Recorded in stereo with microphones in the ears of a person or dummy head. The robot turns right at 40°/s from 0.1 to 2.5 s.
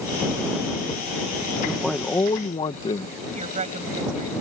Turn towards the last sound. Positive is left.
turn(degrees=-35)  # may be behind; listen again after turning